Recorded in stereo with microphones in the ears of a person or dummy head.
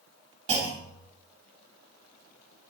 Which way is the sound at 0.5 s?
35° right (ahead or behind).